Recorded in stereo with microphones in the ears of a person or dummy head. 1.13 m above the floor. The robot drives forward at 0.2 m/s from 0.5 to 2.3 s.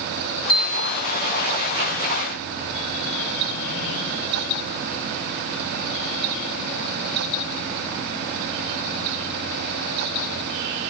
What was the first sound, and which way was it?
A bell, 45° left (ahead or behind).